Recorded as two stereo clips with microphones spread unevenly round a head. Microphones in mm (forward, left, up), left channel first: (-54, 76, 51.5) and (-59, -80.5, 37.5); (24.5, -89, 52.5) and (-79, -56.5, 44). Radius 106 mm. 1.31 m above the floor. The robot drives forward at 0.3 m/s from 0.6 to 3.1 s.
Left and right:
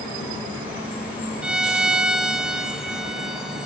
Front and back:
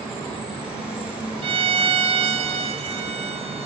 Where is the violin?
175° right, 0.7 m.